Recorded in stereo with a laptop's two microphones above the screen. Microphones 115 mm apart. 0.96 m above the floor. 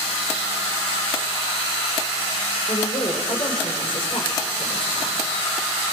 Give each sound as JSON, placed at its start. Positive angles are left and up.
{"t": 2.7, "sound": "a woman speaking", "side_deg": 45, "distance_m": 4.5}